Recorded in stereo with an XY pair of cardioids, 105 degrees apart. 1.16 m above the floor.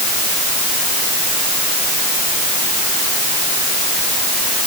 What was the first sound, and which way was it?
Only background noise.